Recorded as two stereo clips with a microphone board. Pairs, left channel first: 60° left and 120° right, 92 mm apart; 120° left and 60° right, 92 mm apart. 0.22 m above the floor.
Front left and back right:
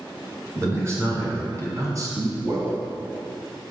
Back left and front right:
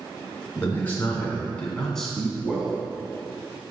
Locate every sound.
0.6 s a man speaking: straight behind, 3 m; by 2.8 s 130° right, 1.6 m